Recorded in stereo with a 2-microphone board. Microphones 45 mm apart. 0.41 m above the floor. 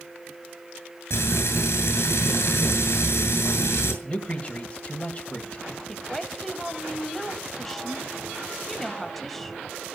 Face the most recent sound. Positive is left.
turn(degrees=5)  # may be behind; listen again after turning